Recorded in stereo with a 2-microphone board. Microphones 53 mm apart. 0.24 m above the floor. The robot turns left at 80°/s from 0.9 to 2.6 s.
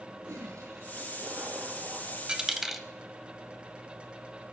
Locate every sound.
0.2 s a toilet flushing: 85° right, 1.8 m; by 2.2 s 175° left, 1.8 m
2.3 s a dropped coin: 15° right (ahead or behind), 0.6 m; by 2.9 s 5° right (ahead or behind), 0.6 m